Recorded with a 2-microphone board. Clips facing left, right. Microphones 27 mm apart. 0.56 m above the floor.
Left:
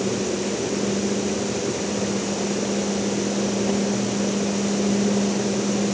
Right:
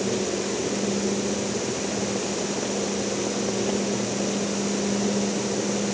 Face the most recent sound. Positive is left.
No sound to turn to.